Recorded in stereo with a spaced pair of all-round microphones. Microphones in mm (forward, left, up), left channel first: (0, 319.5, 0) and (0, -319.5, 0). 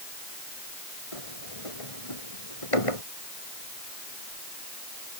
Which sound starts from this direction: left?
A sliding door, at 1.1 s.